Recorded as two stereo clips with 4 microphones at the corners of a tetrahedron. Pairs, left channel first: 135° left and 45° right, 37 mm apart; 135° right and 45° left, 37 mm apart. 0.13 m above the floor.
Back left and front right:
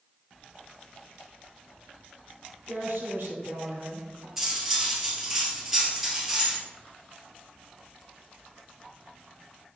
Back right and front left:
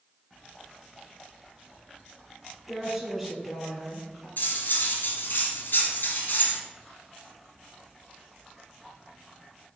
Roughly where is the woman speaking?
Ahead right.